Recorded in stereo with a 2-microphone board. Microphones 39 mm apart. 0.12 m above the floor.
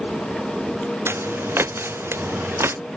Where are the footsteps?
85° right; by 2.8 s 80° right.